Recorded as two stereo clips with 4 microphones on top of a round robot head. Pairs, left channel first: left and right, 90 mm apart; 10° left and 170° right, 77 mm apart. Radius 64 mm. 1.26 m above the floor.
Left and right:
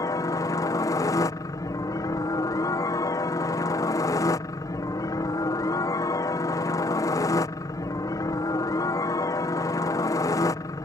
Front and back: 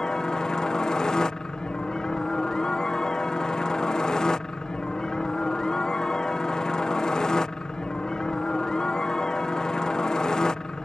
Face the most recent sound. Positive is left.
turn(degrees=85)